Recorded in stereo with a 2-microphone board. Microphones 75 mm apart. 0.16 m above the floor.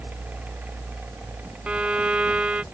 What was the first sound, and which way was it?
A violin, 15° right (ahead or behind).